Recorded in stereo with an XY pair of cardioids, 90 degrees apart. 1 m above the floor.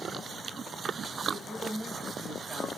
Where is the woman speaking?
20° right, 5 m.